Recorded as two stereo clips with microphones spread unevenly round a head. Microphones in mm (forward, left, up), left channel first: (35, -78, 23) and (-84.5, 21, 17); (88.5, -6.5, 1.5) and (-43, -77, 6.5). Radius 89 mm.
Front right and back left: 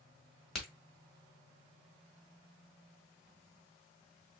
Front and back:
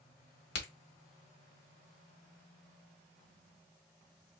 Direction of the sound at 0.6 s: 50° left.